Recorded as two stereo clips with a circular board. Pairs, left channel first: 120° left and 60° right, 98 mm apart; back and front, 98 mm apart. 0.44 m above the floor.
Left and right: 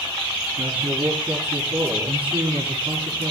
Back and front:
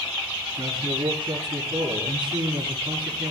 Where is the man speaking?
40° right, 6.5 m.